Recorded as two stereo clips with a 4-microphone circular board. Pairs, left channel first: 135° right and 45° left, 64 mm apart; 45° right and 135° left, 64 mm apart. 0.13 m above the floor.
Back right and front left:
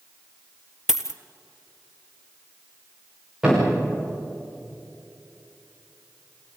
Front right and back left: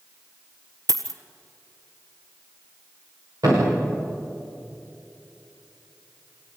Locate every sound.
0.9 s a dropped coin: 125° left, 1.3 m
3.4 s a thud: 125° left, 9 m